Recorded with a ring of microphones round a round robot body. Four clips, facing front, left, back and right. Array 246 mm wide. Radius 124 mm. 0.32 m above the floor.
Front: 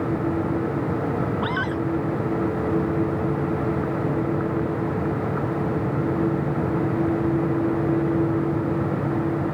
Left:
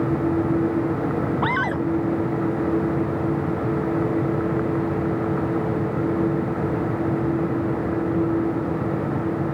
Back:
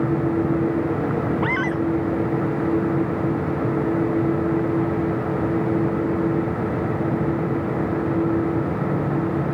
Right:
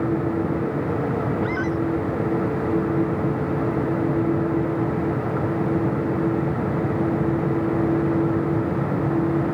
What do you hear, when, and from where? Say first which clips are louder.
1.4 s a scream: left 1 dB, back 3 dB; 105° left